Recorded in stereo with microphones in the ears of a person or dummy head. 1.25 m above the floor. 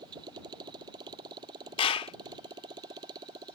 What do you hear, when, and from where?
0.0 s a motorcycle: 25° right (ahead or behind)
1.8 s a clap: 35° left (ahead or behind)